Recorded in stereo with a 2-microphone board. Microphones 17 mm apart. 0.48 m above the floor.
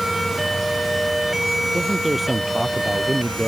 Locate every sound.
1.7 s a man speaking: 20° right (ahead or behind)